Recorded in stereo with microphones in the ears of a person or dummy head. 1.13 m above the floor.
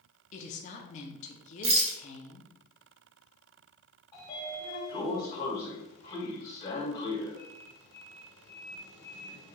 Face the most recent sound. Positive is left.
turn(degrees=25)  # may be behind; listen again after turning